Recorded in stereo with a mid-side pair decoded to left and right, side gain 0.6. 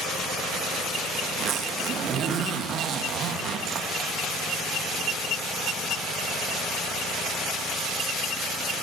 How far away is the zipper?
About 3 m.